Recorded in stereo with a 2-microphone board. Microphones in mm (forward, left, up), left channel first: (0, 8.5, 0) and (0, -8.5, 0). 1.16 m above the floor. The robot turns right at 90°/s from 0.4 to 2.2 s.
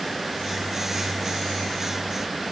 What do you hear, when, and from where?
Only background noise.